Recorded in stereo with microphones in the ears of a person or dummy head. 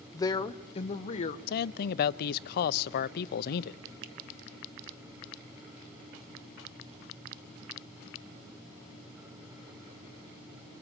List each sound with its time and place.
0.1 s a woman speaking: 15° left (ahead or behind), 0.9 m; by 1.4 s 40° left (ahead or behind), 1.5 m
1.5 s a man speaking: 55° left (ahead or behind), 0.7 m
4.0 s a finger snap: 60° right (ahead or behind), 0.9 m